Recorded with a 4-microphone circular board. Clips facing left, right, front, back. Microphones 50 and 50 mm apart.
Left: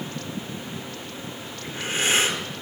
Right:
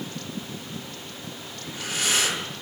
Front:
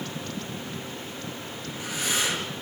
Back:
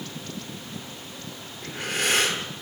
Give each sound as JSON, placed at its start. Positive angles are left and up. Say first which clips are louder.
{"t": 1.6, "sound": "breathing", "louder": "left 3 dB, back 6 dB", "azimuth_deg": 145, "distance_m": 8.0}